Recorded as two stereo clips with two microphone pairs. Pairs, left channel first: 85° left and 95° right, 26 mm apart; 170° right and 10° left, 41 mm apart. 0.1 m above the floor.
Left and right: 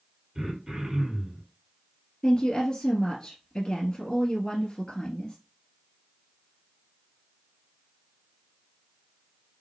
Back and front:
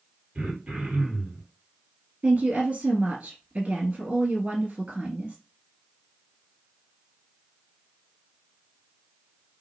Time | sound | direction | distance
0.3 | throat clearing | 35° right | 2.5 m
2.2 | a woman speaking | 50° left | 1.4 m